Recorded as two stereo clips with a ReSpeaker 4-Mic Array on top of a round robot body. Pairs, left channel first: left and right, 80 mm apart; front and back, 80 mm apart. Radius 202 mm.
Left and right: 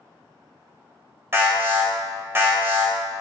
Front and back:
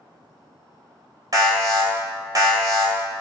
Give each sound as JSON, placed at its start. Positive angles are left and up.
{"t": 1.3, "sound": "an alarm", "azimuth_deg": -145, "distance_m": 2.5}